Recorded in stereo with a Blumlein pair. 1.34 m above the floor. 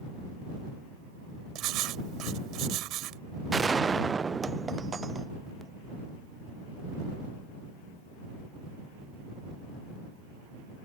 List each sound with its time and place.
1.6 s writing: 35° right
3.5 s a gunshot: 15° right